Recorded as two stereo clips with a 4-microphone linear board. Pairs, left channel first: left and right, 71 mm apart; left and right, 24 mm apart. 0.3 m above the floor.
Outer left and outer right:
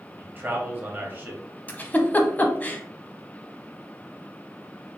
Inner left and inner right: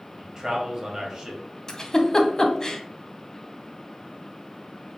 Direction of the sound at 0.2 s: 30° right (ahead or behind).